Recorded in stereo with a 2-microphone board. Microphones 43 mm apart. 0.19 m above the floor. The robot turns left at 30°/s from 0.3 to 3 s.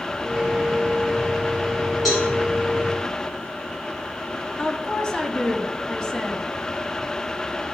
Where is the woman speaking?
15° left (ahead or behind), 1.1 m.